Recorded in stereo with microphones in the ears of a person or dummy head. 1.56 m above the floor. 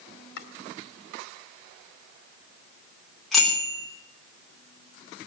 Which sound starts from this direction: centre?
A bicycle bell, at 3.3 s.